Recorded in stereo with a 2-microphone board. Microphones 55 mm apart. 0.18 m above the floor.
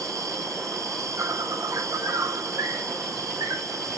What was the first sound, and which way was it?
An insect, 80° right.